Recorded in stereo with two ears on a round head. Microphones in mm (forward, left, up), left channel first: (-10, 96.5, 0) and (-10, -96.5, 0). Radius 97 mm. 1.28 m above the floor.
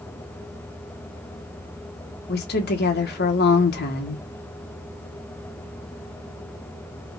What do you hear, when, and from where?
2.3 s a woman speaking: 50° left (ahead or behind), 1.4 m